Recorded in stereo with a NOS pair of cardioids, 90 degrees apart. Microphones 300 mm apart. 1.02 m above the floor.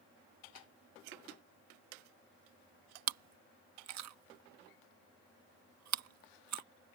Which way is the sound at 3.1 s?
65° right.